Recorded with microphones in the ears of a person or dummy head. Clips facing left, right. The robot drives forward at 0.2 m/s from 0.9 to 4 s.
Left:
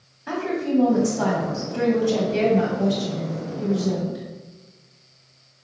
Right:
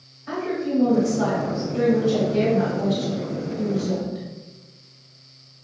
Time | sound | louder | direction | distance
0.3 | a woman speaking | left 1 dB | 75° left (ahead or behind) | 1.6 m